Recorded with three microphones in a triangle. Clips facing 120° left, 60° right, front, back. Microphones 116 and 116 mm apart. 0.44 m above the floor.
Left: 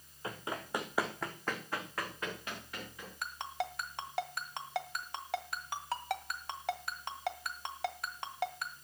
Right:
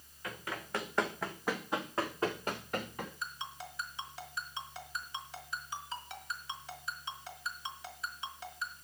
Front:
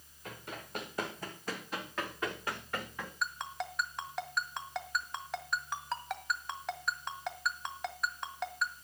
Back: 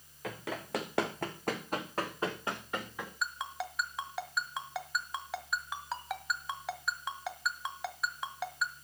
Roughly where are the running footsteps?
Behind.